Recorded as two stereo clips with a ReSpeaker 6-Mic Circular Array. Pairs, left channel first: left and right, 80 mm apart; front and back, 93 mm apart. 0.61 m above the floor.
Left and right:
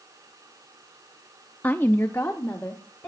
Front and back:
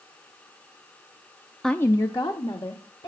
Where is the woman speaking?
80° left, 0.5 m; by 3.1 s 25° left, 2.5 m.